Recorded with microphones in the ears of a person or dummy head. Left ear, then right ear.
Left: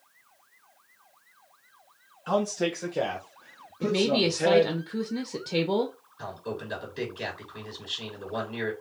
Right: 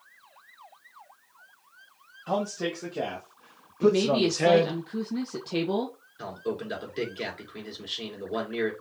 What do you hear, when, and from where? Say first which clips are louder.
2.3 s a man speaking: left 3 dB; 40° left (ahead or behind), 1.6 m; by 4.8 s 80° right, 1.1 m
3.8 s a woman speaking: right 2 dB; 5° left (ahead or behind), 0.7 m
6.2 s a man speaking: right 3 dB; 35° right (ahead or behind), 3.5 m